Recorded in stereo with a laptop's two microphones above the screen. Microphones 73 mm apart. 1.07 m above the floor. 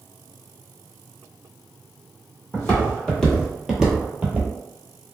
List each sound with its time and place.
2.5 s footsteps: 20° left (ahead or behind), 1.5 m; by 4.5 s 25° right (ahead or behind), 1.3 m